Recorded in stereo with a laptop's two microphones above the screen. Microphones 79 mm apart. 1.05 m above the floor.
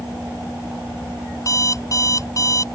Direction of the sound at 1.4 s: 40° left (ahead or behind).